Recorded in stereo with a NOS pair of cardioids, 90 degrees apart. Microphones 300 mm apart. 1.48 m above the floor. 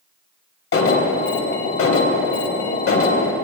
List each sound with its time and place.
0.7 s an alarm: 45° left, 1.2 m